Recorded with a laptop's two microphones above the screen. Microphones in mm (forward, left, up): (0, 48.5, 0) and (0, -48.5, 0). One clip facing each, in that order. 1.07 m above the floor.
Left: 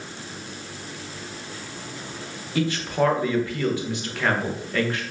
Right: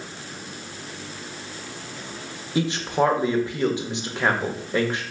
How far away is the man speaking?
About 0.6 m.